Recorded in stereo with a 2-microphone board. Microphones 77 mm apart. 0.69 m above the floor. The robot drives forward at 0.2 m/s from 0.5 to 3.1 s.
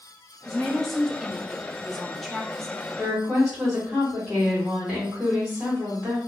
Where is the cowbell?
I don't hear a cowbell.